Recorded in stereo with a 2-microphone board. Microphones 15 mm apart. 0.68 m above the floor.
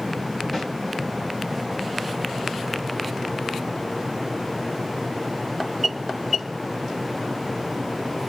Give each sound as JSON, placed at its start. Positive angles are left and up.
{"t": 0.5, "sound": "a snare drum", "side_deg": 0, "distance_m": 2.5}